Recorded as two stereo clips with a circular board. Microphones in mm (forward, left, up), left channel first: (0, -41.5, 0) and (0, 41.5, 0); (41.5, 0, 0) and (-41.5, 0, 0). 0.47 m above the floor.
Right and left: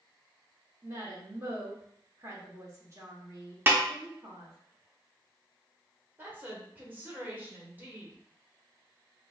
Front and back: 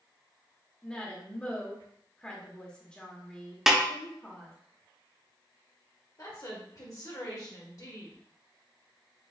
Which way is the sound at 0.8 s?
70° left.